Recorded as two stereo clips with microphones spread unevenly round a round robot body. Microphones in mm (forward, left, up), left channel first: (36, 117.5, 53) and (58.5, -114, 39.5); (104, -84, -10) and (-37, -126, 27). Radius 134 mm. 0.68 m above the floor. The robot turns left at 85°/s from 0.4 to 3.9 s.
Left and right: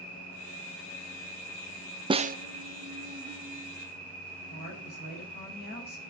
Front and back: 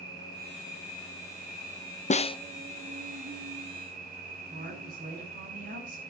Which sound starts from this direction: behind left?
A woman speaking, at 4.5 s.